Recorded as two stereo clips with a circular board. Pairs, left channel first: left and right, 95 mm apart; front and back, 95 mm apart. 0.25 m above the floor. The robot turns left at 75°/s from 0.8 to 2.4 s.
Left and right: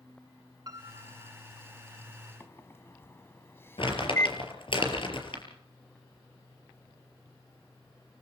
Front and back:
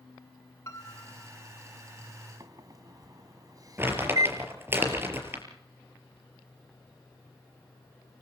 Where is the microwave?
150° left, 1.6 m.